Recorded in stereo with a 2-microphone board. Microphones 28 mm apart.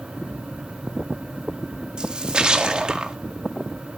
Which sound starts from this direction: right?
A splash, at 2.0 s.